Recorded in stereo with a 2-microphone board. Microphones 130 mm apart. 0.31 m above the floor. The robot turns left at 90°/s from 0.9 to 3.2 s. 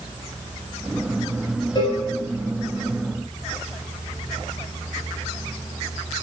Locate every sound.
1.8 s a cowbell: 40° left (ahead or behind), 0.6 m; by 2.0 s 15° left (ahead or behind), 0.6 m